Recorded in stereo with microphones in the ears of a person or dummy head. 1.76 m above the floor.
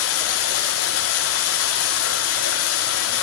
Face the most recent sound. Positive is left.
turn(degrees=80)